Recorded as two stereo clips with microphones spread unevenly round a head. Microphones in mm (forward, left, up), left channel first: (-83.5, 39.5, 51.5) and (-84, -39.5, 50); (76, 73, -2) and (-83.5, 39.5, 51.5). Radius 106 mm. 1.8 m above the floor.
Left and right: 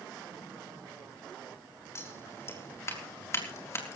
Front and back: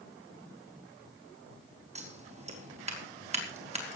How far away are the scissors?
About 4 m.